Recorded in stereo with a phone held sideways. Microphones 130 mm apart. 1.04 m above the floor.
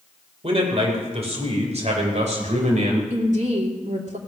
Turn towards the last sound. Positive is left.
turn(degrees=-60)  # may be behind; listen again after turning